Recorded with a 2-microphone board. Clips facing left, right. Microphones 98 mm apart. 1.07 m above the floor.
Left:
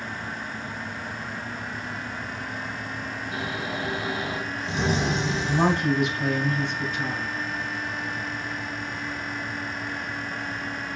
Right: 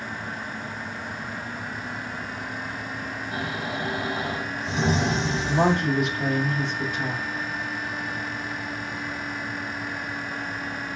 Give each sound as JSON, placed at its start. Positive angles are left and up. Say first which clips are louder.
{"t": 3.3, "sound": "snoring", "louder": "right 1 dB", "side_deg": -75, "distance_m": 2.5}
{"t": 5.5, "sound": "a woman speaking", "louder": "right 1 dB", "side_deg": -70, "distance_m": 2.0}